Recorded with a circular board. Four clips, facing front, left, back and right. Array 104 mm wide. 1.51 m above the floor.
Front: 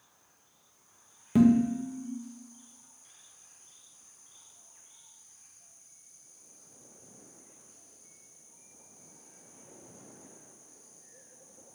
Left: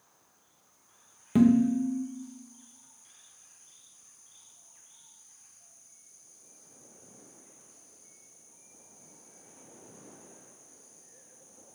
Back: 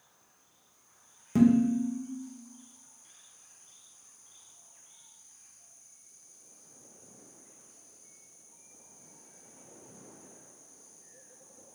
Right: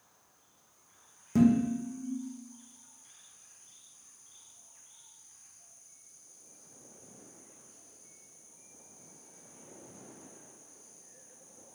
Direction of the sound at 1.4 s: 65° left.